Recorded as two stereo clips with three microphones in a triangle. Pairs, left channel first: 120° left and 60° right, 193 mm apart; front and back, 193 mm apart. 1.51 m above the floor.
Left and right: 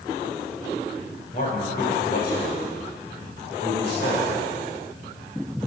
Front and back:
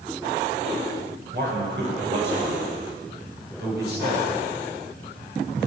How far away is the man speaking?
About 5.5 m.